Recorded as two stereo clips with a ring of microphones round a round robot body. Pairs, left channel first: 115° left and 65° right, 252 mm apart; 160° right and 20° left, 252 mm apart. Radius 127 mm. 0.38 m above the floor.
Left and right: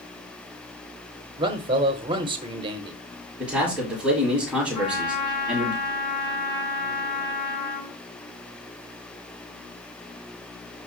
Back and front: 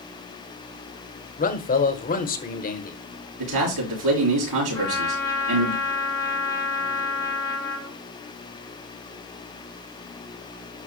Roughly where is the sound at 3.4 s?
Ahead.